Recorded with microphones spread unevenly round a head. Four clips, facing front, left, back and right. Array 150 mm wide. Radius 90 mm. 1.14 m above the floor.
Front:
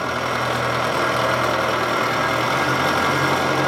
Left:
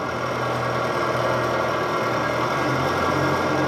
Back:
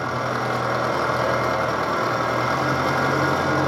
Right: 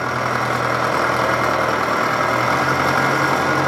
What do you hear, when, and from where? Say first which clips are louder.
0.0 s an engine running: right 4 dB, front 2 dB; 70° right, 1.2 m